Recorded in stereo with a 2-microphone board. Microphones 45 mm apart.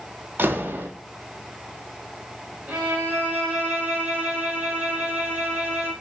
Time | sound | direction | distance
0.4 | a door slam | 45° right (ahead or behind) | 1.7 m
2.7 | a violin | 35° right (ahead or behind) | 5 m